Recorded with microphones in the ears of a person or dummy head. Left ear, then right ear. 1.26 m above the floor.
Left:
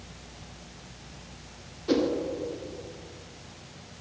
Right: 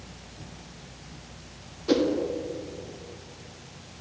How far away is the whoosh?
About 0.8 m.